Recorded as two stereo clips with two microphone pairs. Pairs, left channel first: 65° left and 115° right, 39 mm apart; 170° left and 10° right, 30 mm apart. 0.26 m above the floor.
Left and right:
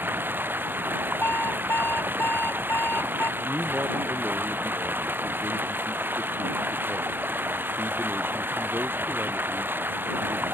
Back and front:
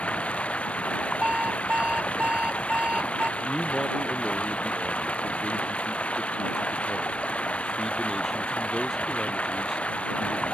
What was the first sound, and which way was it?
Running water, 145° right.